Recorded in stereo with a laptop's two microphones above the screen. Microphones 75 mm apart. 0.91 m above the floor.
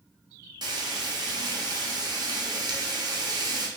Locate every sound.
0.6 s frying: 70° right (ahead or behind), 0.5 m